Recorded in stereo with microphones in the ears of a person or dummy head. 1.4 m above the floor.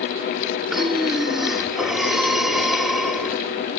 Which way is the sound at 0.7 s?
Centre (ahead or behind).